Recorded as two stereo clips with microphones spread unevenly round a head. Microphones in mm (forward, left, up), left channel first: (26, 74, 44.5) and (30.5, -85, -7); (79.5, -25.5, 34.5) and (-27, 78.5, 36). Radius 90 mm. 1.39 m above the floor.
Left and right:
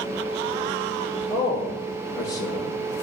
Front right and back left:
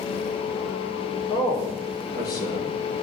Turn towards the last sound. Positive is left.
turn(degrees=20)